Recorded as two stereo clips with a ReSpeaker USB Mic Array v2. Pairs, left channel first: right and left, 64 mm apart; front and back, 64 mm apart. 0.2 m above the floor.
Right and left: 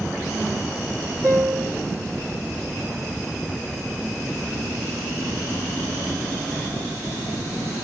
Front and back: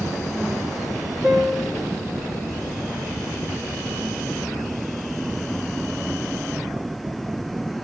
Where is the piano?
135° left, 2.5 m.